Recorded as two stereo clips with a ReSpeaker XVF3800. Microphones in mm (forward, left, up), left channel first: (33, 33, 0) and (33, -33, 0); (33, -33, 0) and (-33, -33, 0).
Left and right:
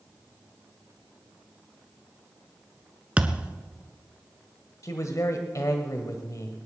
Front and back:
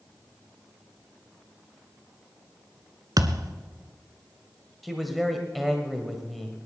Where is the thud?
160° right, 1.0 m.